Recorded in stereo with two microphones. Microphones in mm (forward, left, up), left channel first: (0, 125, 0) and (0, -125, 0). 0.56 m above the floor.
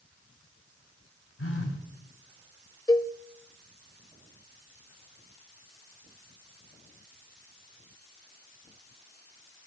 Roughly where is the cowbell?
Centre.